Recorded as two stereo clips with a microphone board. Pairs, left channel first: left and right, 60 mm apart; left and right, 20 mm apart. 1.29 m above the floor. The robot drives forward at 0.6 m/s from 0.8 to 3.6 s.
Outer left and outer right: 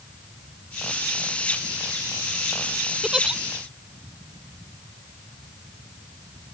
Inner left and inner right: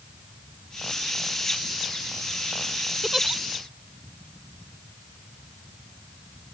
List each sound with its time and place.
3.0 s a giggle: 10° right (ahead or behind)